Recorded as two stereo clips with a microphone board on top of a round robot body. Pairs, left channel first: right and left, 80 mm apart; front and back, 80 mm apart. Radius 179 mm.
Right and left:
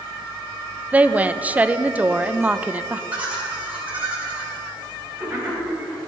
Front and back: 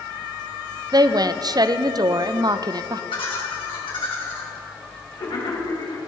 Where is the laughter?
20° left, 4 m.